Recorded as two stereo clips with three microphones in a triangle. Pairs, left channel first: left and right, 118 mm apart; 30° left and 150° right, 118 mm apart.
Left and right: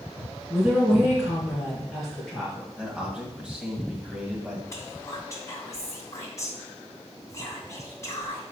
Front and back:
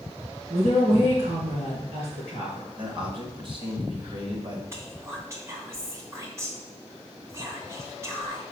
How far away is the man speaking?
About 2 m.